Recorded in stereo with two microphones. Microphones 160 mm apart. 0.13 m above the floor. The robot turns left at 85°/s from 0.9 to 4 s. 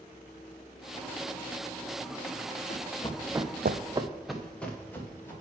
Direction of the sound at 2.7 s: 70° left (ahead or behind).